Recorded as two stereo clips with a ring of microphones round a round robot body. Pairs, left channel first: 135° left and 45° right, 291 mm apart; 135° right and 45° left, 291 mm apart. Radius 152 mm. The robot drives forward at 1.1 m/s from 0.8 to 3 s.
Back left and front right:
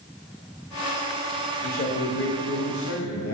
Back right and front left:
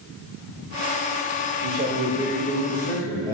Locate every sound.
1.6 s a man speaking: 80° left, 1.3 m; by 3.4 s 150° left, 1.9 m